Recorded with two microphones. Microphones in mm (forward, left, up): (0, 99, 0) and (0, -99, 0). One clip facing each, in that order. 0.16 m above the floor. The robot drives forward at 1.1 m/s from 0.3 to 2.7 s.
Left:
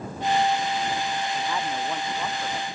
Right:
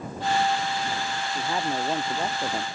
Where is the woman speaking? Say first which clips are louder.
Right 1 dB; 30° right (ahead or behind); by 2.7 s 40° right (ahead or behind).